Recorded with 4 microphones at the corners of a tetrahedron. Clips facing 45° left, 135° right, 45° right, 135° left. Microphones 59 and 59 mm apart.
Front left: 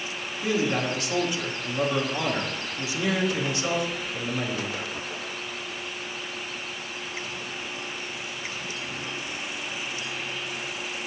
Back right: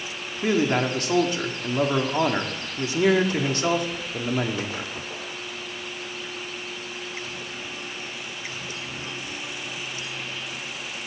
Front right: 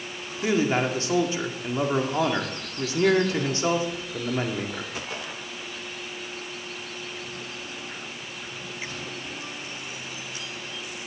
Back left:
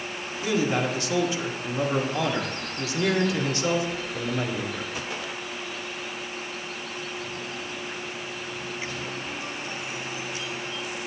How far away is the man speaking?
About 1.8 m.